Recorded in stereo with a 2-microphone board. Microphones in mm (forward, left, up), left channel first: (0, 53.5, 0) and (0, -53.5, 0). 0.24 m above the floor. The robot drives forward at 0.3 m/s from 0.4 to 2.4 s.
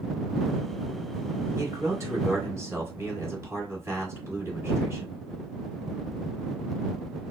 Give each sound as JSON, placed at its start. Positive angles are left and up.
{"t": 1.6, "sound": "a man speaking", "side_deg": -30, "distance_m": 1.1}